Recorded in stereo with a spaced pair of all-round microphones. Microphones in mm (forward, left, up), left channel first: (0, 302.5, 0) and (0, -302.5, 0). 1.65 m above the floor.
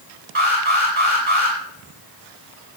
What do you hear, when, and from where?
0.3 s an alarm: 55° right (ahead or behind), 10 m